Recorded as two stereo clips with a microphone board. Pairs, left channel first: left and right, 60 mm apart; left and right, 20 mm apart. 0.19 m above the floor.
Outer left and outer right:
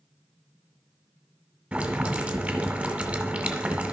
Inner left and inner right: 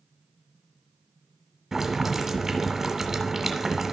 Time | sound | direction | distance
1.7 | boiling | 25° right (ahead or behind) | 1.4 m